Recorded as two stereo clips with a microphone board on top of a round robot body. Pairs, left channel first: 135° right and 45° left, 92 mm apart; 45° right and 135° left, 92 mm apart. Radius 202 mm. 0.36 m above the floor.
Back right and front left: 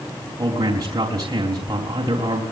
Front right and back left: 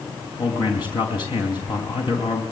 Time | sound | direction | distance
0.4 | a man speaking | 5° right | 4 m